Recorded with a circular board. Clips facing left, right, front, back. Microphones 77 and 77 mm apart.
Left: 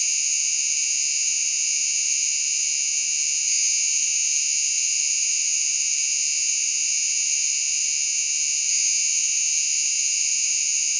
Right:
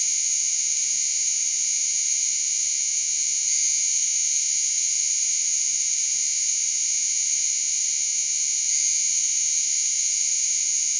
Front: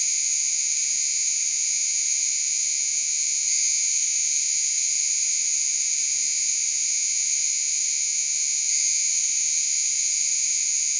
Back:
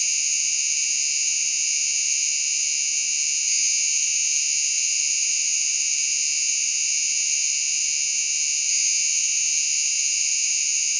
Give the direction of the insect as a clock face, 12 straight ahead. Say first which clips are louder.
Left 5 dB, back 5 dB; 2 o'clock.